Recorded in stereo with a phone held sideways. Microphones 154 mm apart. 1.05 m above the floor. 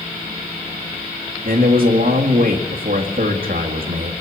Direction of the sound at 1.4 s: 75° right (ahead or behind).